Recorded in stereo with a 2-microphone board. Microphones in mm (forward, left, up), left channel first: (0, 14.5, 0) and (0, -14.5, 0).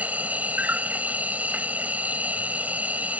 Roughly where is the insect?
Right.